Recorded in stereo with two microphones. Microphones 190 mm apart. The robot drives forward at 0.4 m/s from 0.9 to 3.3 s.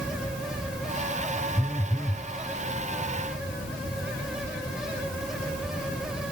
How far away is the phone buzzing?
About 0.8 m.